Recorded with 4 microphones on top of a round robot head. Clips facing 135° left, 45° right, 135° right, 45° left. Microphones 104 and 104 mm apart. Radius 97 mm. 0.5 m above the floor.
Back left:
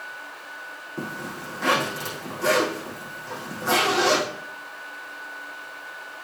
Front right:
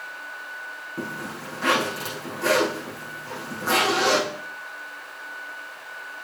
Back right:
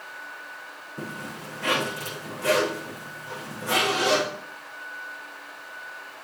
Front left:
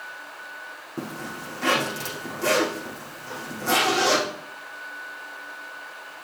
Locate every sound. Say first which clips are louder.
1.0 s a zipper: even, front left 3 dB; 40° left, 4.5 m